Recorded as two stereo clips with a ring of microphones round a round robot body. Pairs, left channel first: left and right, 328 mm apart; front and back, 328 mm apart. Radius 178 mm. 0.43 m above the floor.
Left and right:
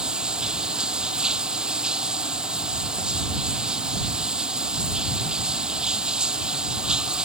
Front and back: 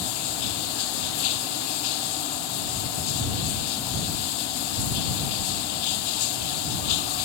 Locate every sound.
0.0 s running water: straight ahead